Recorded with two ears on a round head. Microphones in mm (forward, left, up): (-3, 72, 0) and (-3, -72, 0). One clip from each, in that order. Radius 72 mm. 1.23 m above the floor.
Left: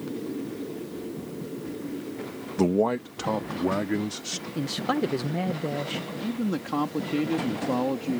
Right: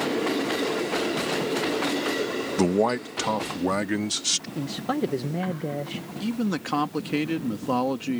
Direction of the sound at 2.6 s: 30° right (ahead or behind).